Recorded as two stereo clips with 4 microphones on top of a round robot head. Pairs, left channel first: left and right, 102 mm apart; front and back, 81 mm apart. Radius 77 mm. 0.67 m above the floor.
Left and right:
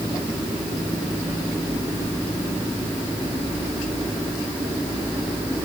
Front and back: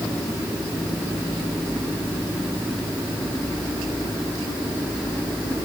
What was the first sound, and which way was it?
Only background noise.